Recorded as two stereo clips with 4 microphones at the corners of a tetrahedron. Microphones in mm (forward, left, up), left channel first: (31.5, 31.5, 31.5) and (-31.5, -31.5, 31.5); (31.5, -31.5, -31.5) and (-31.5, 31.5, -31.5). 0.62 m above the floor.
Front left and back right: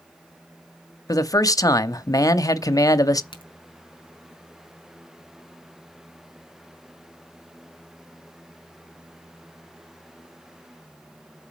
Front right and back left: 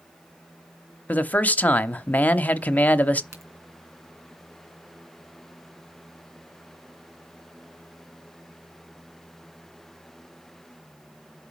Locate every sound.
1.1 s a man speaking: 20° left, 0.8 m
3.3 s a crack: 80° left, 3 m